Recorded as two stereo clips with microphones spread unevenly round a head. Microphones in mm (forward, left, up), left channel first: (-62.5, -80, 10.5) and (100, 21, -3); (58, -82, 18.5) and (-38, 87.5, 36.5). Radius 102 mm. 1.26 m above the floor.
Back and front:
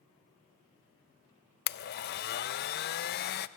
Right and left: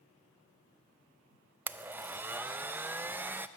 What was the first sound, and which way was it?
A blender, 165° right.